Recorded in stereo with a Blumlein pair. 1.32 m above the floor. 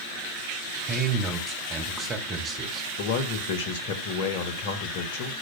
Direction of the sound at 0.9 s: 30° right.